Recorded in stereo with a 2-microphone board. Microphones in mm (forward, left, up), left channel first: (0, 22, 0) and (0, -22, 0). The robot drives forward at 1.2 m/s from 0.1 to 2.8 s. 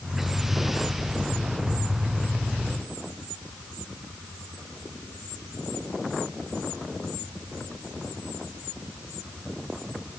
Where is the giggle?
I don't hear a giggle.